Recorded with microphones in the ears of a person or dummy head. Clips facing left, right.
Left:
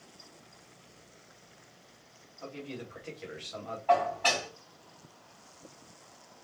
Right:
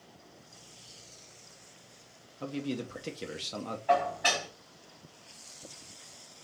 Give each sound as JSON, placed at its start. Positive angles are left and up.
{"t": 2.4, "sound": "a man speaking", "side_deg": -55, "distance_m": 0.8}
{"t": 3.9, "sound": "dishes clattering", "side_deg": -15, "distance_m": 3.0}